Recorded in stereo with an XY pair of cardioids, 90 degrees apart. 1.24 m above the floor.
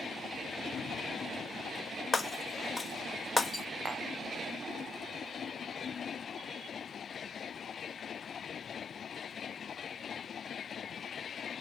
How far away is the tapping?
About 0.8 m.